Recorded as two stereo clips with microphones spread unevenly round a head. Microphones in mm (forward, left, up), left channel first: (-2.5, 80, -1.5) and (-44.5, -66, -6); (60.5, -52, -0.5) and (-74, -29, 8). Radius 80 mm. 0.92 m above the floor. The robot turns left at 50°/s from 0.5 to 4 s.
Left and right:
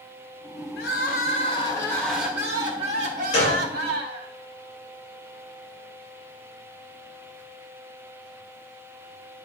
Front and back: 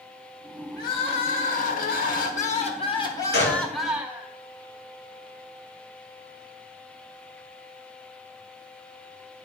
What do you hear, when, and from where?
0.8 s crying: 55° left, 1.2 m; by 4.3 s 110° right, 1.2 m
3.3 s a gunshot: 15° left, 5 m; by 3.6 s straight ahead, 5 m